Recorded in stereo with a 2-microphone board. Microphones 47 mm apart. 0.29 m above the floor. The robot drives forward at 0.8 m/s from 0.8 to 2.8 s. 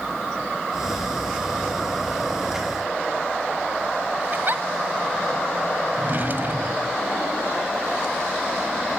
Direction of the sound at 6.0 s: 45° right (ahead or behind).